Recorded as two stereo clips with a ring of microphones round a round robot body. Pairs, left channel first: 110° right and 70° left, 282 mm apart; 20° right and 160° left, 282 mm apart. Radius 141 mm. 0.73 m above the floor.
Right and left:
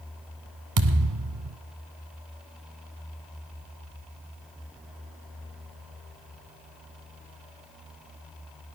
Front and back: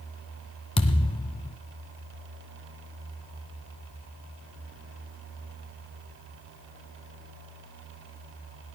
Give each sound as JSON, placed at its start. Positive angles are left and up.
{"t": 0.8, "sound": "a thud", "azimuth_deg": 50, "distance_m": 1.2}